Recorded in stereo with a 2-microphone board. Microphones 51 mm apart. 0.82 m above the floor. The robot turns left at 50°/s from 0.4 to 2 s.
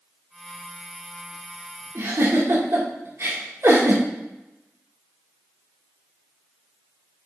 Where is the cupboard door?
No cupboard door in this recording.